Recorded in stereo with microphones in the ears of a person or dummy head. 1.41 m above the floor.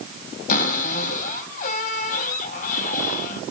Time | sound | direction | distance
0.5 | a cupboard door | 50° left (ahead or behind) | 3.5 m